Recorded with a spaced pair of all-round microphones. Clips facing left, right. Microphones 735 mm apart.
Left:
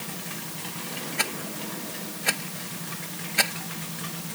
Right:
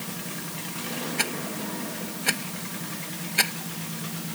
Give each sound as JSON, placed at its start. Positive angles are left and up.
{"t": 1.2, "sound": "a rattle", "side_deg": 20}